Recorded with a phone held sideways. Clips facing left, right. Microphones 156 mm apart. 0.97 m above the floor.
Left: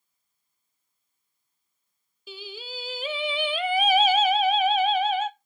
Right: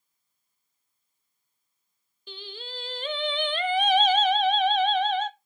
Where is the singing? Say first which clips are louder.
Left 2 dB; 5° left (ahead or behind), 0.5 m.